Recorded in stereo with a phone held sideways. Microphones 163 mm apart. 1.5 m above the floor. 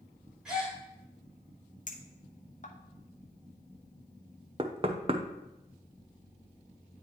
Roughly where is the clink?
Left.